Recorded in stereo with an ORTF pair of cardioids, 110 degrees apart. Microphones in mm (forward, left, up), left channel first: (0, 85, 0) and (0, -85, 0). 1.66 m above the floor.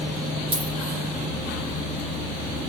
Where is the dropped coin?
35° right, 7.5 m.